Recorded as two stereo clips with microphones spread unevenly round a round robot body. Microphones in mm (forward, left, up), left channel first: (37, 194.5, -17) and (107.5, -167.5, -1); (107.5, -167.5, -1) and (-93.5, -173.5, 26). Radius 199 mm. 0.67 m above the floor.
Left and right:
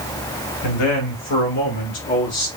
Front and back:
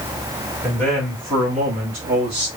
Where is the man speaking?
95° left, 1.3 m; by 2.5 s straight behind, 1.1 m.